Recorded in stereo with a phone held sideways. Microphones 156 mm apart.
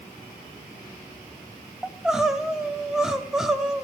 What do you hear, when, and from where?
1.8 s crying: 5° right (ahead or behind), 0.9 m